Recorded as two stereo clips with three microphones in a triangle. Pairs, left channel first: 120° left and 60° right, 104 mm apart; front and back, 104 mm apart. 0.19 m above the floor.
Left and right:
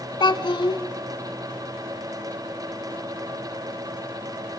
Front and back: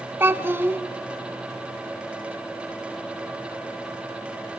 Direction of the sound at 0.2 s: 120° left.